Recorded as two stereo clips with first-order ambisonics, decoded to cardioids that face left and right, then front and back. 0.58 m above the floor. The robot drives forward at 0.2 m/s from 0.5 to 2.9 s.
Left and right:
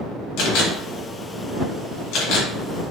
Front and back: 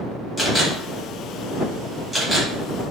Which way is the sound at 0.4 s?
85° left.